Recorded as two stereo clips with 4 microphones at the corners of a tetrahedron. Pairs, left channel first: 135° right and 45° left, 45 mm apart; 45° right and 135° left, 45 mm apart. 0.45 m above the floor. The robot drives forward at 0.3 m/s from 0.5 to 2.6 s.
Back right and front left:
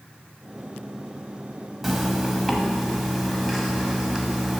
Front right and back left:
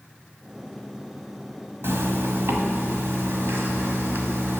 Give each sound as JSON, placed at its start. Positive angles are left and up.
{"t": 1.8, "sound": "a zipper", "azimuth_deg": 130, "distance_m": 1.4}